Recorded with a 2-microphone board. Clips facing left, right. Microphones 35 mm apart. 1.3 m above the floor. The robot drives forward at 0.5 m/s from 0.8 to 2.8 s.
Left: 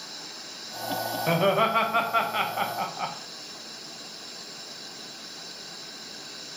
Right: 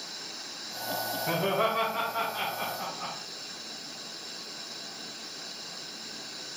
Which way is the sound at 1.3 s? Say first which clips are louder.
Left 5 dB; 45° left (ahead or behind).